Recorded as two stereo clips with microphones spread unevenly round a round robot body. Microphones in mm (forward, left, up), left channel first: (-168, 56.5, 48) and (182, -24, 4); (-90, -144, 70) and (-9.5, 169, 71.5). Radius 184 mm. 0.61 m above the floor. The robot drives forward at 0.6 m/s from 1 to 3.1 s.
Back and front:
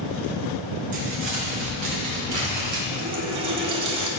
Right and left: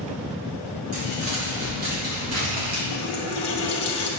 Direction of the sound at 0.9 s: 25° left.